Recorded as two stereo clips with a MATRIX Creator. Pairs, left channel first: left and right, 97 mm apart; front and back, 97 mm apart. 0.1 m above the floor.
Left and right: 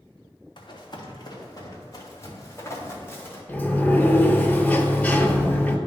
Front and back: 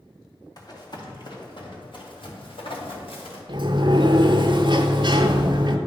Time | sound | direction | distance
0.6 | running footsteps | 50° left | 1.9 m
3.5 | a sliding door | 160° left | 0.7 m